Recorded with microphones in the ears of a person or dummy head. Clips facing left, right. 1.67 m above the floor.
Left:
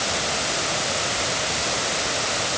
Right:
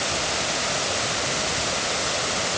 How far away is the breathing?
I don't hear breathing.